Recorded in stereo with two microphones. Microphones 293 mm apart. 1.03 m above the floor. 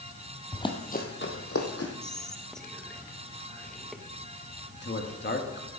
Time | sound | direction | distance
0.5 | running footsteps | 10° left (ahead or behind) | 1.6 m
2.0 | whispering | centre (ahead or behind) | 1.2 m
4.7 | a man speaking | 40° left (ahead or behind) | 1.6 m